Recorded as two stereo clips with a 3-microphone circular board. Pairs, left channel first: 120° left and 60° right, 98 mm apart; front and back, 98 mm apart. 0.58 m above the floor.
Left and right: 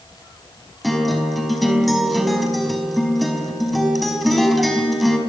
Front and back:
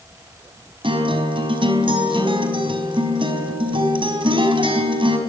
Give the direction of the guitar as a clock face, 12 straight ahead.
5 o'clock.